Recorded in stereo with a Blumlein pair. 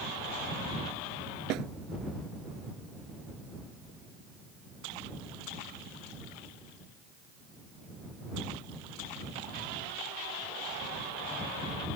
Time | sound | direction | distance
1.5 | a snare drum | 40° right | ?